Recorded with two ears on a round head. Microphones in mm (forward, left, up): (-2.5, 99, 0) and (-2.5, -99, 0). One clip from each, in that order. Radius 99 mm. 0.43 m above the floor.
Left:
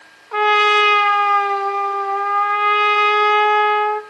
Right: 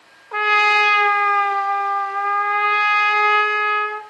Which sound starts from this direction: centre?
A trumpet, at 0.3 s.